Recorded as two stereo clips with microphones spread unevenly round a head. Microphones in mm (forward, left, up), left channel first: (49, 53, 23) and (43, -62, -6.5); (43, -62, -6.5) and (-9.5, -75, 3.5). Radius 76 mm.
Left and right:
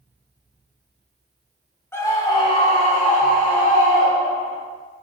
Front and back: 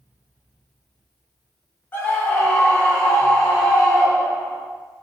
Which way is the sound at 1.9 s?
10° left.